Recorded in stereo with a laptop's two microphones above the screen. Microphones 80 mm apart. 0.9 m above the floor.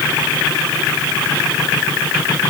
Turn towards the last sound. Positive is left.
No sound to turn to.